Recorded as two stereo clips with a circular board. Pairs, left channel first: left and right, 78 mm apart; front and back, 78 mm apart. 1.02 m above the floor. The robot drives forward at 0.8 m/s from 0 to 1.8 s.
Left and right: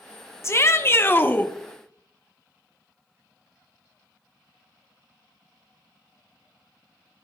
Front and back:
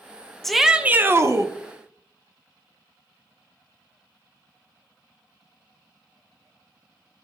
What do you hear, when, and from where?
0.4 s a shout: 85° left, 0.8 m; by 1.5 s 150° left, 1.1 m